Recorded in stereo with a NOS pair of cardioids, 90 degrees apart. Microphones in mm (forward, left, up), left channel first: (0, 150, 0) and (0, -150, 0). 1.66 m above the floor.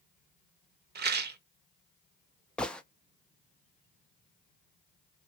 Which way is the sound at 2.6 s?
5° left.